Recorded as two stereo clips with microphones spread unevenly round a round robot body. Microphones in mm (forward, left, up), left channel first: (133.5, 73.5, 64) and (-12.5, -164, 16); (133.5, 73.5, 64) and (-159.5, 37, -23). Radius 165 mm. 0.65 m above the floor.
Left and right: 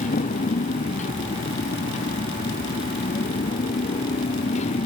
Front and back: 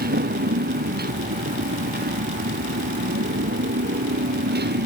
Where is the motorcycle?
130° left.